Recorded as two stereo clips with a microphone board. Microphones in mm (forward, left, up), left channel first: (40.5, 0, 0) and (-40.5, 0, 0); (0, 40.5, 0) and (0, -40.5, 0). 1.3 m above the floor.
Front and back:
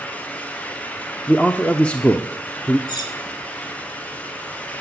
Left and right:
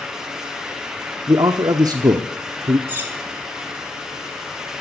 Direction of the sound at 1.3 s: 70° right.